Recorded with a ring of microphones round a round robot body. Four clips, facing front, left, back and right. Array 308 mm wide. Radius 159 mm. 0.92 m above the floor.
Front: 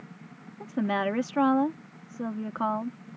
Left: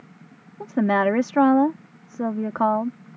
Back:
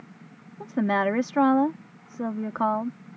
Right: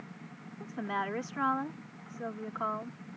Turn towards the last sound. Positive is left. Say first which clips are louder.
# left 15 dB, back 4 dB
turn(degrees=100)